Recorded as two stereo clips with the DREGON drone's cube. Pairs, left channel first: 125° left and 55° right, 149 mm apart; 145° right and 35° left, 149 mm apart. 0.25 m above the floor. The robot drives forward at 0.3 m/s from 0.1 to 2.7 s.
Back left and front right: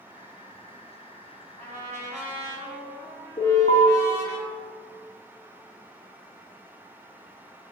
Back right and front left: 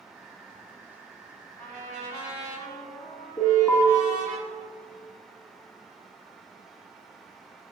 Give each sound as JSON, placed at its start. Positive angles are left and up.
{"t": 1.6, "sound": "a trumpet", "azimuth_deg": -75, "distance_m": 2.0}
{"t": 3.4, "sound": "an alarm", "azimuth_deg": 150, "distance_m": 1.3}